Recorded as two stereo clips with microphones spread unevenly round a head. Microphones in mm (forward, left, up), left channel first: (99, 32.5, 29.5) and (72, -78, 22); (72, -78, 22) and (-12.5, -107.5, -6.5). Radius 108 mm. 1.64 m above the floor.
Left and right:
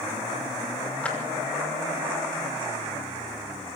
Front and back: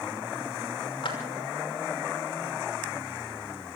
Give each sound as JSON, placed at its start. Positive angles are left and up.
{"t": 1.0, "sound": "a clap", "azimuth_deg": -5, "distance_m": 5.5}